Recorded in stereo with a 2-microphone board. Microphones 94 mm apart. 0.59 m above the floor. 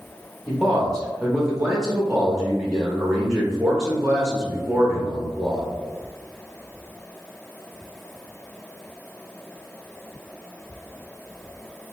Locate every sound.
0.5 s a man speaking: 5° right (ahead or behind), 0.7 m